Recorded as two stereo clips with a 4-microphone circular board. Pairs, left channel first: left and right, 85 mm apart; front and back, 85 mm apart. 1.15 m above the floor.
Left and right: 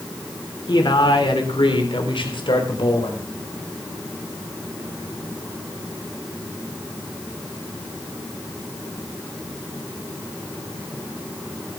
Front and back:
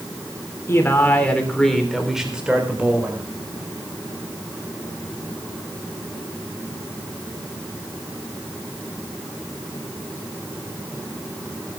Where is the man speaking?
60° left, 3.5 m; by 3.2 s 115° left, 5 m.